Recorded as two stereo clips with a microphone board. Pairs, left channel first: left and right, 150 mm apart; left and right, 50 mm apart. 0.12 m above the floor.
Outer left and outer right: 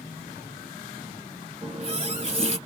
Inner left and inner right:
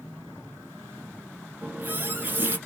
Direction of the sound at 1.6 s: 40° right (ahead or behind).